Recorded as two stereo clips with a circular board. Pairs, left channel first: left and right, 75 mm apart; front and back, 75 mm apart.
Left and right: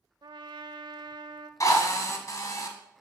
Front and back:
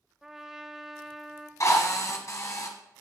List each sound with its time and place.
0.2 s a trumpet: 95° right, 0.7 m
1.6 s a drill: 45° left, 1.4 m